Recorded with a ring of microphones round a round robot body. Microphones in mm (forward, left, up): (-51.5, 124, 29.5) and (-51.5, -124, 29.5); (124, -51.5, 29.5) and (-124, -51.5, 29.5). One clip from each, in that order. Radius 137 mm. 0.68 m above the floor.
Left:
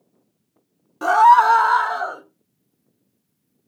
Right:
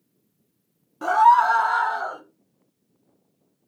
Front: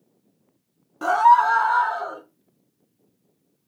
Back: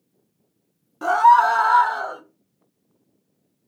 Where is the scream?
75° left, 0.6 m; by 2.2 s 155° left, 1.2 m.